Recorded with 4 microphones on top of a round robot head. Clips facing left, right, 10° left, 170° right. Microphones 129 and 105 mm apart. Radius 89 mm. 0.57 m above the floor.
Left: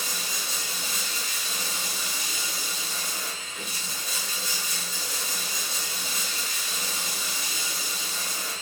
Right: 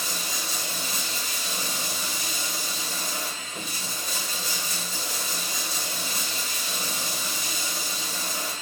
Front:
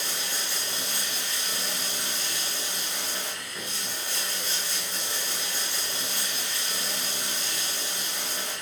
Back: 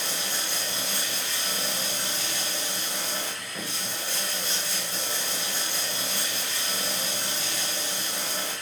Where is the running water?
115° right, 3 m.